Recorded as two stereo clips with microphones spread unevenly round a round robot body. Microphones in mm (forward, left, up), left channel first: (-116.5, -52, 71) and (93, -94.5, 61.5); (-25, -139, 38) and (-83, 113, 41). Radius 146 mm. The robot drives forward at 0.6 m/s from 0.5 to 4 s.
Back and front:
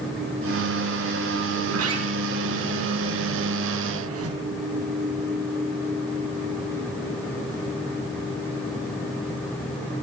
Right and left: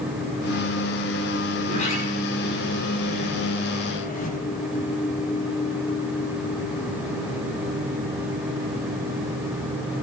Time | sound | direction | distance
1.6 | a sliding door | 10° right | 7.5 m